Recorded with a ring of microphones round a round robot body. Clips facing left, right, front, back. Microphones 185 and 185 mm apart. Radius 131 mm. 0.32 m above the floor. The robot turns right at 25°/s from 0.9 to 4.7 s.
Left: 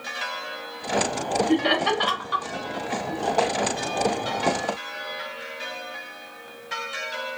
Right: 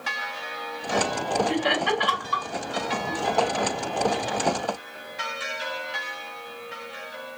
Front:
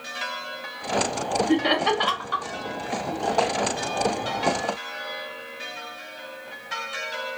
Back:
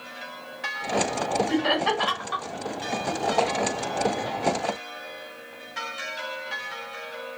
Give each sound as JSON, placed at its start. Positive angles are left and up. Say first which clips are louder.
{"t": 1.5, "sound": "laughter", "louder": "left 3 dB, front 2 dB", "azimuth_deg": 80, "distance_m": 2.0}